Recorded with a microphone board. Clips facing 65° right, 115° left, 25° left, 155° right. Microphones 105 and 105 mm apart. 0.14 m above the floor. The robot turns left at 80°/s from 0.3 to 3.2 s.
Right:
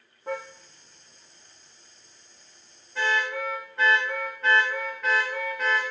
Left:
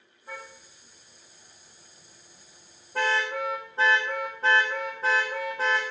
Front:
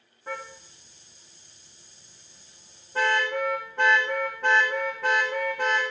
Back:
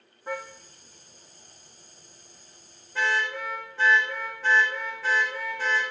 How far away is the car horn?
About 4.5 m.